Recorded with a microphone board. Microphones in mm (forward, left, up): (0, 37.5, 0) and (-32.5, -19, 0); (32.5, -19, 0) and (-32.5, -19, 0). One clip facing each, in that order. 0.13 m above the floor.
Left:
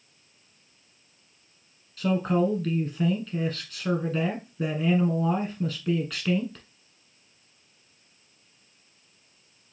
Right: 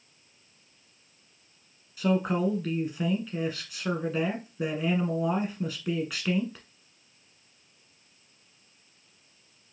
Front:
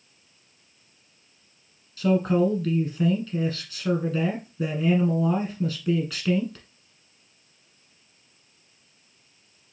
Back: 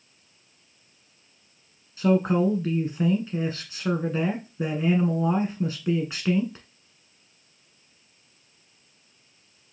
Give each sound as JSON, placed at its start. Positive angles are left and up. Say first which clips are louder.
{"t": 2.0, "sound": "a man speaking", "louder": "left 2 dB, even", "azimuth_deg": 170, "distance_m": 1.1}